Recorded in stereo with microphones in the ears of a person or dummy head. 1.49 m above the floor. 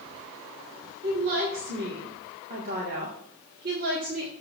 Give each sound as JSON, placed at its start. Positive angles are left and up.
{"t": 1.0, "sound": "a woman speaking", "side_deg": -45, "distance_m": 1.9}